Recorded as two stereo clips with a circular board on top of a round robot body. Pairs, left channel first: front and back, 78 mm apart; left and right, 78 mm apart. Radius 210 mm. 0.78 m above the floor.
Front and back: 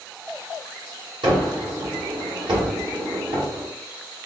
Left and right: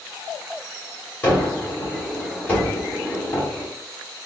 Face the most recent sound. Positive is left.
turn(degrees=160)